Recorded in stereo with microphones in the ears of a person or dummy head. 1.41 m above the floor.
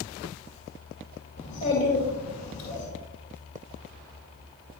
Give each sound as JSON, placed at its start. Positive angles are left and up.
{"t": 1.4, "sound": "a child speaking", "side_deg": 50, "distance_m": 2.5}